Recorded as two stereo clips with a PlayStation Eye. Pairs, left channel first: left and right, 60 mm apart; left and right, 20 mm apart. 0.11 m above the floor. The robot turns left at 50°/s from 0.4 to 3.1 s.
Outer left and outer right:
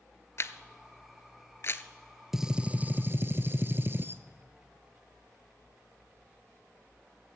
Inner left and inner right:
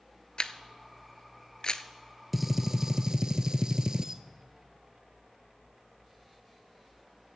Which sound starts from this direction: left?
A camera shutter, at 0.4 s.